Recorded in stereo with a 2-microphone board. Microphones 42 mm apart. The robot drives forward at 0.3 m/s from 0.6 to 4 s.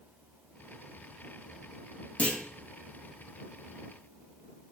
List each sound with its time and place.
2.2 s a clunk: 35° left (ahead or behind), 2.5 m; by 2.4 s 30° left (ahead or behind), 2.5 m